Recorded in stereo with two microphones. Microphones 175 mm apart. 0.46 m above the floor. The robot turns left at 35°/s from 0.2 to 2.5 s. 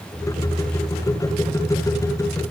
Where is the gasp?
No gasp in this recording.